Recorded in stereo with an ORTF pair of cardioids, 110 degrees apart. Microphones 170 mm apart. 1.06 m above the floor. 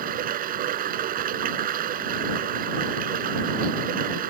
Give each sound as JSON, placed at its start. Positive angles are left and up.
{"t": 0.0, "sound": "running water", "azimuth_deg": -60}